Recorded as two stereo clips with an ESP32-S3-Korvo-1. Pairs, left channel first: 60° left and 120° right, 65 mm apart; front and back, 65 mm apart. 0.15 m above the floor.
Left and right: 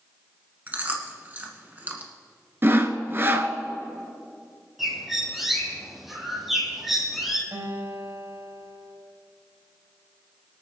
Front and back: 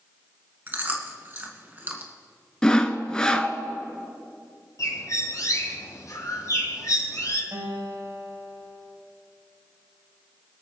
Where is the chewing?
155° right, 1.5 m.